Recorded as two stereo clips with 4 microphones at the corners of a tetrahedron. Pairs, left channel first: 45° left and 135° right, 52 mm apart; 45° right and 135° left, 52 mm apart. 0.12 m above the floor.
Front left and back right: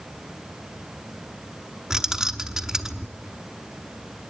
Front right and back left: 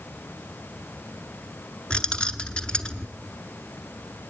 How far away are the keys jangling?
About 0.8 m.